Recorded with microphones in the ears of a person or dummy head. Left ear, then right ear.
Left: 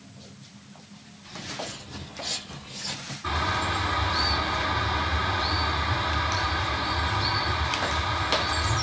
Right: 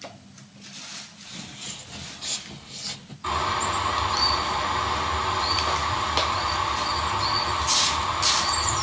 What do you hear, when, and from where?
1.2 s footsteps: 35° right (ahead or behind), 2.5 m; by 3.1 s centre (ahead or behind), 2 m
3.2 s a bird: 30° right (ahead or behind), 2 m